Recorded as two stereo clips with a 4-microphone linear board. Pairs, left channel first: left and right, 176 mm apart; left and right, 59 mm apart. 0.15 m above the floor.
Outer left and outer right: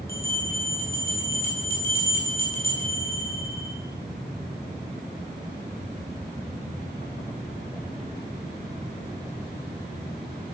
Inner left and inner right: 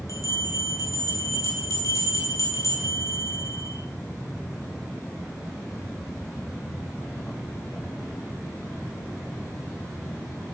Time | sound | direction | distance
0.1 | a bell | 60° left (ahead or behind) | 2.5 m